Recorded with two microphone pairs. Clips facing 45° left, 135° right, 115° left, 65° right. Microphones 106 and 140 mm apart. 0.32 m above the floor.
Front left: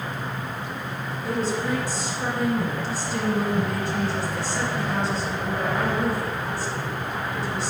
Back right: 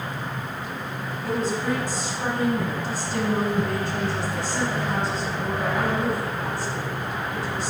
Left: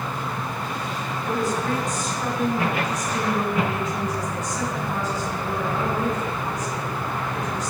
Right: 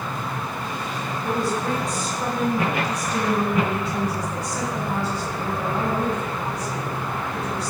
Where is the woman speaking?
115° right, 2.5 m.